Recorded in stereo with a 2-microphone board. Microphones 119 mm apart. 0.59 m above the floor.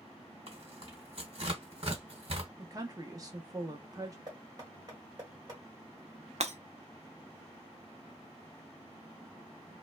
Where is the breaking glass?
70° right (ahead or behind), 0.5 m.